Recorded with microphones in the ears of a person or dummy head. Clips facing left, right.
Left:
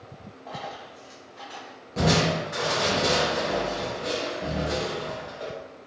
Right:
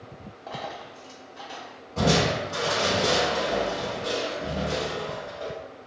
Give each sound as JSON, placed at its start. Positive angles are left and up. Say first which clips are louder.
{"t": 0.5, "sound": "a dropped coin", "louder": "right 1 dB", "side_deg": -20, "distance_m": 0.6}
{"t": 2.0, "sound": "crushing", "louder": "even", "side_deg": 30, "distance_m": 0.8}